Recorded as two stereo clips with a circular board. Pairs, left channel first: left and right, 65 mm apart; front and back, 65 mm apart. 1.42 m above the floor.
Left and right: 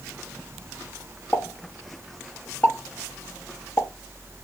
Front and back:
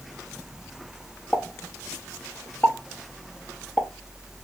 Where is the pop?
45° left, 0.8 m.